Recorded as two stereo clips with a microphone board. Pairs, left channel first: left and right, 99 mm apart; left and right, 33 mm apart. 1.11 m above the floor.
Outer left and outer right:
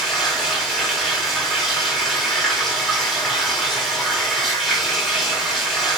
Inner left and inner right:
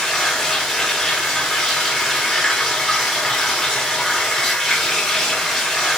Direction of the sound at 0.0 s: 5° left (ahead or behind).